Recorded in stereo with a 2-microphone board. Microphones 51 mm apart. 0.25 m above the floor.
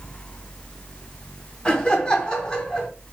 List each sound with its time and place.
1.6 s laughter: 15° left (ahead or behind), 1.7 m